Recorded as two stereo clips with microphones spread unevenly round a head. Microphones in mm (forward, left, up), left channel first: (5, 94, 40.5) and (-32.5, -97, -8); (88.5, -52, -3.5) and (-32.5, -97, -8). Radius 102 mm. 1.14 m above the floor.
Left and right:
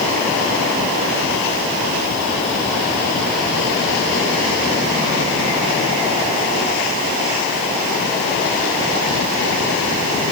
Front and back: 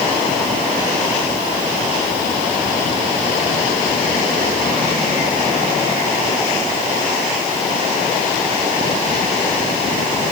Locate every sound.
Only background noise.